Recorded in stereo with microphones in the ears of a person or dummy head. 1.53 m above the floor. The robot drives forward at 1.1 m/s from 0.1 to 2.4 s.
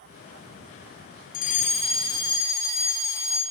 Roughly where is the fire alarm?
Left.